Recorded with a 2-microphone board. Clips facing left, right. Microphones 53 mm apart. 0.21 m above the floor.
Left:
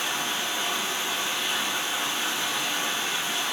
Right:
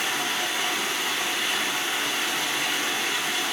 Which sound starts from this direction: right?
Running water, at 0.0 s.